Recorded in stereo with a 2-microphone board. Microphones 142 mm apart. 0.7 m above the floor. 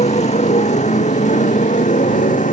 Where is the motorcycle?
50° left (ahead or behind); by 2.5 s 60° left (ahead or behind).